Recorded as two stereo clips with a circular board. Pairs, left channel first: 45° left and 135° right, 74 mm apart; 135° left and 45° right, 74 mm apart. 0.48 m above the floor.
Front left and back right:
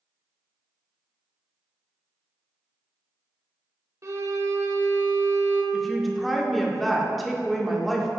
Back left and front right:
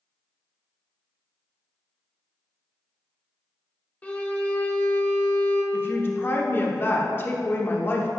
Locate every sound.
4.0 s a violin: 160° right, 0.9 m
5.7 s a woman speaking: 135° left, 0.8 m